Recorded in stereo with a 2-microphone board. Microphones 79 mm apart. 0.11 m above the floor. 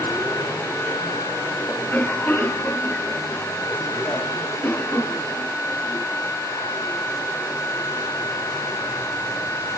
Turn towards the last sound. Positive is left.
turn(degrees=25)  # may be behind; listen again after turning